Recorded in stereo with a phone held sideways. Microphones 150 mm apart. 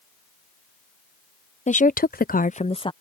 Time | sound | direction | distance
1.7 | a woman speaking | 50° left (ahead or behind) | ?